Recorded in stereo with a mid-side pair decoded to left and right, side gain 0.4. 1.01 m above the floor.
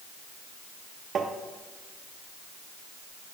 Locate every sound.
1.1 s tapping: 55° right, 1.2 m